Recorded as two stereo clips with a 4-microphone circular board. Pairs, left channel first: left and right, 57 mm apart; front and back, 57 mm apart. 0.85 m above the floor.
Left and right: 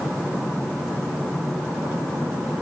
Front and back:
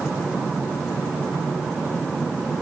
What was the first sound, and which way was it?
Only background noise.